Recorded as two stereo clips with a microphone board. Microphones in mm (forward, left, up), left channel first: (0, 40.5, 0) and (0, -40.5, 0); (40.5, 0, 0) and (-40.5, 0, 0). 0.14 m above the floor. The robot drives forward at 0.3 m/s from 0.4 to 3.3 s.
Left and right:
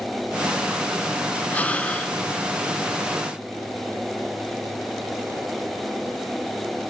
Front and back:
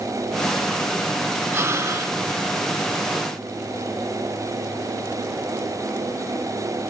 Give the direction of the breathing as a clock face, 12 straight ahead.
7 o'clock.